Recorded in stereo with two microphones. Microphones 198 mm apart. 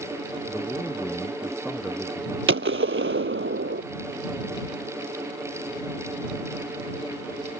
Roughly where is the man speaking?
Centre.